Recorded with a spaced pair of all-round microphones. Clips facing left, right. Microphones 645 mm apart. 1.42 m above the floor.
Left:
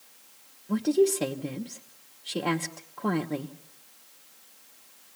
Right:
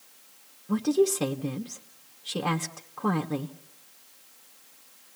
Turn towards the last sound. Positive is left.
turn(degrees=-35)  # may be behind; listen again after turning